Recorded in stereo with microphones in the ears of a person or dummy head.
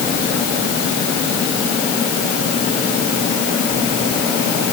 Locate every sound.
Only background noise.